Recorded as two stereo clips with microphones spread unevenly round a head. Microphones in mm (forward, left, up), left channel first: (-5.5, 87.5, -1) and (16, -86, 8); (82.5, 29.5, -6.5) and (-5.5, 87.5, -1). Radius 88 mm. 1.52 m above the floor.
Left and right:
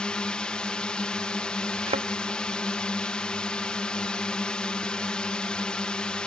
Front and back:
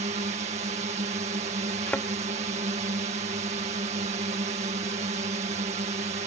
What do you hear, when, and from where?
0.0 s a drone: straight behind
1.9 s a thud: 110° right